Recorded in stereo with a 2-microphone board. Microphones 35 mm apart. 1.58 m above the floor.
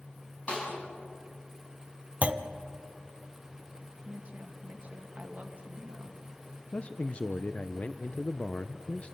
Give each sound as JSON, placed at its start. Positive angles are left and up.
{"t": 0.5, "sound": "a snare drum", "side_deg": 45, "distance_m": 8.0}
{"t": 2.2, "sound": "a clunk", "side_deg": -40, "distance_m": 0.7}
{"t": 4.0, "sound": "a woman speaking", "side_deg": -40, "distance_m": 1.8}
{"t": 6.7, "sound": "a man speaking", "side_deg": 40, "distance_m": 0.6}